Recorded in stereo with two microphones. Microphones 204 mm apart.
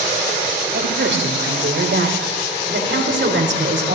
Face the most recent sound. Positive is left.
turn(degrees=-75)  # may be behind; listen again after turning